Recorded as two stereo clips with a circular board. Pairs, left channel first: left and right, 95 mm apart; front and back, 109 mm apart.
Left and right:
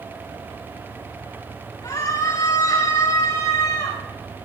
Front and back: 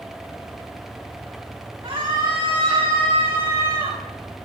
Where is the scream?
125° left, 9.5 m; by 4.0 s 130° left, 10.5 m.